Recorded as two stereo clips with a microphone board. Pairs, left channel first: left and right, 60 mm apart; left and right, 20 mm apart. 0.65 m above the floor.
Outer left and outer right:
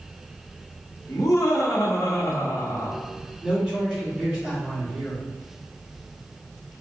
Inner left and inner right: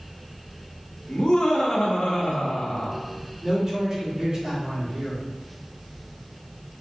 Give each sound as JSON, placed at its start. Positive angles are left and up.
{"t": 1.1, "sound": "laughter", "side_deg": 70, "distance_m": 1.5}
{"t": 3.4, "sound": "a man speaking", "side_deg": -5, "distance_m": 2.0}